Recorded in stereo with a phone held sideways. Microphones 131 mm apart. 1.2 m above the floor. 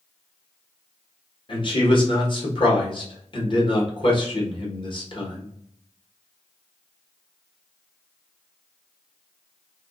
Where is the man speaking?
45° left (ahead or behind), 1.0 m.